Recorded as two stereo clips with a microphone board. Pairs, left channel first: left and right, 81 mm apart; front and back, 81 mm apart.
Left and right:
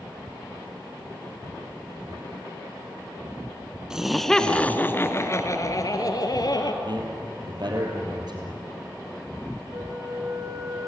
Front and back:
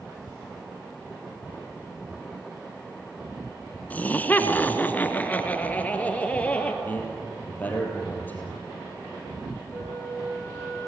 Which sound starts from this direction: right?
A man speaking, at 6.8 s.